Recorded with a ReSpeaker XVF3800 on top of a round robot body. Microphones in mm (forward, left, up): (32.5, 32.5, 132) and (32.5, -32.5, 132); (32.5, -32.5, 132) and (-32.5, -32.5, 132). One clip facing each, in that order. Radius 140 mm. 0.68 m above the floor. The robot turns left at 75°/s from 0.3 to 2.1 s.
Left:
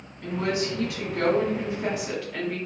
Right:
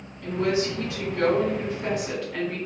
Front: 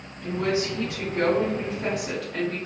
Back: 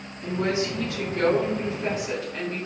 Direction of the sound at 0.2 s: 125° left.